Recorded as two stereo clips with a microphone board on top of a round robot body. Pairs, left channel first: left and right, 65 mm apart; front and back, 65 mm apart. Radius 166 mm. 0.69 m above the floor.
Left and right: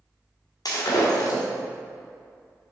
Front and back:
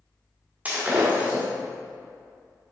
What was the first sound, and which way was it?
Breaking glass, 110° left.